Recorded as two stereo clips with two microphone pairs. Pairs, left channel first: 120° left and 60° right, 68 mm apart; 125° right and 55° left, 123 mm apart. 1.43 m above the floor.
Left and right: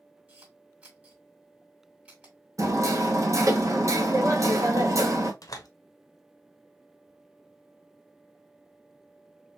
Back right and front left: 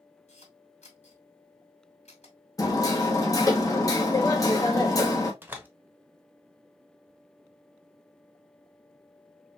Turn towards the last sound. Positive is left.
turn(degrees=125)